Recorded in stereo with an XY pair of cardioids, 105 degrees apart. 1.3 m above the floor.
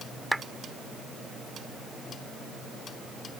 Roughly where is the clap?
Ahead.